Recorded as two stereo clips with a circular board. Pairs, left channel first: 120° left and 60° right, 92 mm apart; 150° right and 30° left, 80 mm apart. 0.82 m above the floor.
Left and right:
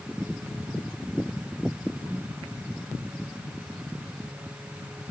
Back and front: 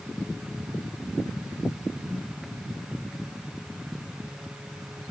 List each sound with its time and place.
Only background noise.